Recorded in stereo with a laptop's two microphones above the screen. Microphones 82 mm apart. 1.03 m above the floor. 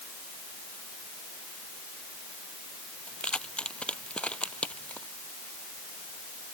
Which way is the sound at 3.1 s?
10° left (ahead or behind).